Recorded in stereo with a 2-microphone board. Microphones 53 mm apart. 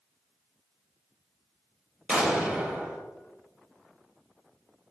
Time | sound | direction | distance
2.1 | an explosion | 20° right (ahead or behind) | 1.2 m